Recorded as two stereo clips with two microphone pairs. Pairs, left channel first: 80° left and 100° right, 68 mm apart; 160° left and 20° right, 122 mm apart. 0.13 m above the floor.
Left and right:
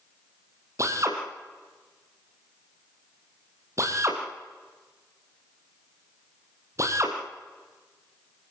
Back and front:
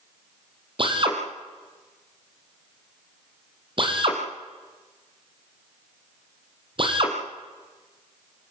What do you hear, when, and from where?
0.8 s a drill: 60° right, 4.5 m